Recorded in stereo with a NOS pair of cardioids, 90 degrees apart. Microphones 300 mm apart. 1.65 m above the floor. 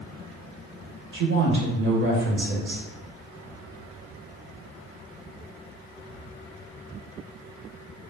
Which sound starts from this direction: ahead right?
A woman speaking, at 1.1 s.